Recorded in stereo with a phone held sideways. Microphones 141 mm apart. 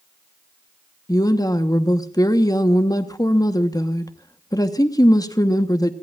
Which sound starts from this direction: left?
A woman speaking, at 1.1 s.